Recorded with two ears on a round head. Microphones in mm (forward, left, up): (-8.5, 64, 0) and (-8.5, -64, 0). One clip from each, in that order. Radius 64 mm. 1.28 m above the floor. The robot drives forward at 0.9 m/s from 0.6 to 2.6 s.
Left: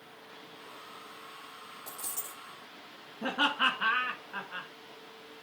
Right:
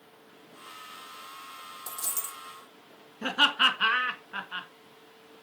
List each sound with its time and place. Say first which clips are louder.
1.9 s a dropped coin: right 6 dB; 65° right (ahead or behind), 5 m; by 2.4 s 60° right (ahead or behind), 5 m
3.2 s laughter: right 5 dB; 85° right, 2.0 m